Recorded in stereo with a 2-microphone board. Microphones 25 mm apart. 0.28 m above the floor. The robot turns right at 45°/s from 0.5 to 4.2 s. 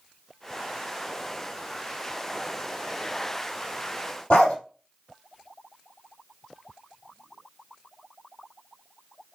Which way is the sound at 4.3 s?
50° left (ahead or behind).